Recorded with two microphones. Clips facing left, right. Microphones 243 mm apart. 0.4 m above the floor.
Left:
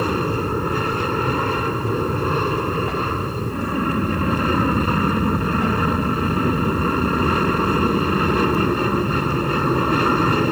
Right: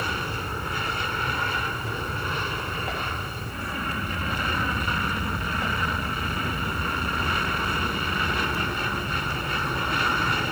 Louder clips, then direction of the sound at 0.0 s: Left 12 dB; 60° left (ahead or behind).